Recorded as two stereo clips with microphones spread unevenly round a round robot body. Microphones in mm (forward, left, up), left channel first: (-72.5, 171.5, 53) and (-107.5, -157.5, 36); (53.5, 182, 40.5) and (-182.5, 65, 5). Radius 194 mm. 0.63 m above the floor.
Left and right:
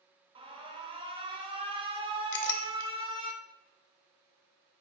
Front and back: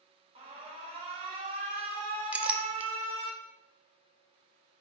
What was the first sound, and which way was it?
An alarm, 150° right.